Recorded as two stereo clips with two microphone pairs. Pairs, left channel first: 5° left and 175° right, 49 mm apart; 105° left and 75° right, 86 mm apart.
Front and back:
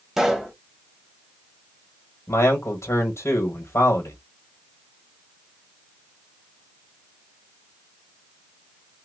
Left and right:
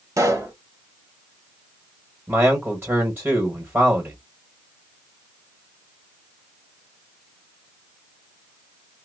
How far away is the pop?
About 1.1 m.